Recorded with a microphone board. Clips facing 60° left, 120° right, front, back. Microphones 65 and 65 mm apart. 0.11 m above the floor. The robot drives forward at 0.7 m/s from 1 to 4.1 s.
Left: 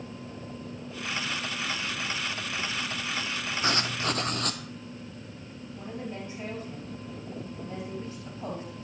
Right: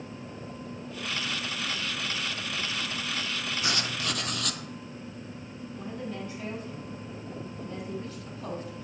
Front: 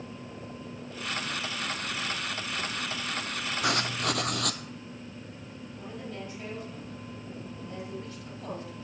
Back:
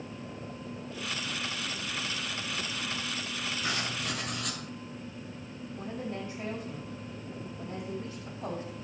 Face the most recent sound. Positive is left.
turn(degrees=120)